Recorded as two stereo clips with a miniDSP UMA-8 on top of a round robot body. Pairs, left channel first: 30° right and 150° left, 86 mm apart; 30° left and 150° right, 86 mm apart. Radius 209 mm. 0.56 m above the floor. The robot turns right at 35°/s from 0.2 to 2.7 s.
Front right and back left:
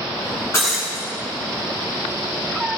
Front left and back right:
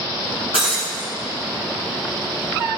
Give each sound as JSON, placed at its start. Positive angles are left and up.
{"t": 0.5, "sound": "breaking glass", "azimuth_deg": 25, "distance_m": 0.6}